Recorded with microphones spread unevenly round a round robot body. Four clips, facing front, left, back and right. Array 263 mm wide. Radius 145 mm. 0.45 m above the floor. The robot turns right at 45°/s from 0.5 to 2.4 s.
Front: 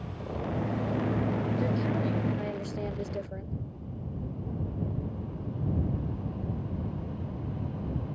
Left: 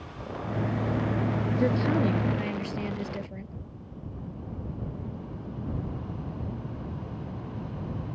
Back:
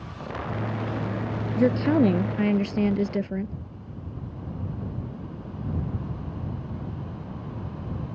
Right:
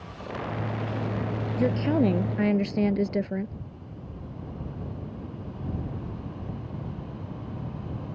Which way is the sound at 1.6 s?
Straight behind.